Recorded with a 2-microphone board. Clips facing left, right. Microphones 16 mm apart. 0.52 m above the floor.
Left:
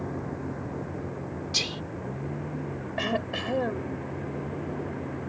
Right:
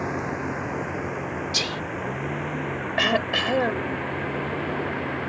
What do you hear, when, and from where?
0.0 s a vehicle: 80° right
1.5 s whispering: 15° right (ahead or behind)
3.0 s throat clearing: 40° right (ahead or behind)